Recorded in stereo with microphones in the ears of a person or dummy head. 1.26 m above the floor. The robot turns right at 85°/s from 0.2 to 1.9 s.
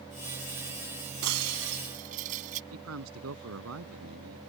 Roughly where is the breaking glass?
Right.